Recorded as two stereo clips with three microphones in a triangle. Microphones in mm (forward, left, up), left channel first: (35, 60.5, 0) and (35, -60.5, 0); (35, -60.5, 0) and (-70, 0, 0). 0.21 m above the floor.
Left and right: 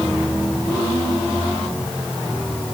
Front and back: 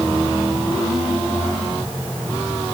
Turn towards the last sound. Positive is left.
No sound to turn to.